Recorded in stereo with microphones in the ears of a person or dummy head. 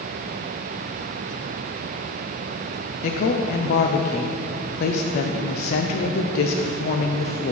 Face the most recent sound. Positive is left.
turn(degrees=45)  # may be behind; listen again after turning